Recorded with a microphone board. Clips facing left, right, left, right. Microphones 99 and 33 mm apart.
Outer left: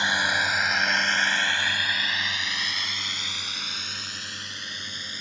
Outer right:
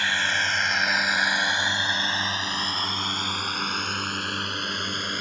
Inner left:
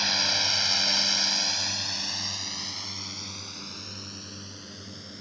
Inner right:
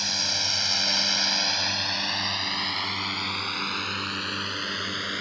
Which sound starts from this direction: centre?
A drone, at 0.0 s.